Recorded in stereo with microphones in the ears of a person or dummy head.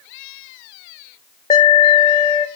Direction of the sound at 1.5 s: 20° left (ahead or behind).